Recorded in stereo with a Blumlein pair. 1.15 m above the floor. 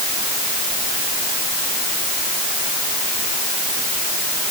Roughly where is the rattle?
No rattle in this recording.